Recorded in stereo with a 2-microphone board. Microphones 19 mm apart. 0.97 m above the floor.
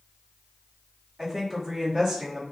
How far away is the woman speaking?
About 1.8 m.